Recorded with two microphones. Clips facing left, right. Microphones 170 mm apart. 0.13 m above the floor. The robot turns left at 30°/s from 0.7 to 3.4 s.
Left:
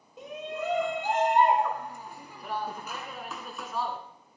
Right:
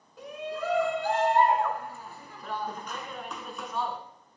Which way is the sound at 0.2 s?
20° left (ahead or behind).